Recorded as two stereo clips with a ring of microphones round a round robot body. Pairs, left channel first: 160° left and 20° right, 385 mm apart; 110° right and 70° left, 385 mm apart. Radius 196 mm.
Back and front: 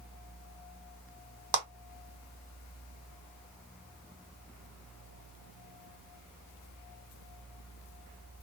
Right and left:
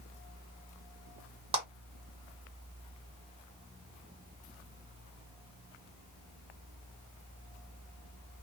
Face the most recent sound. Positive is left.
turn(degrees=-10)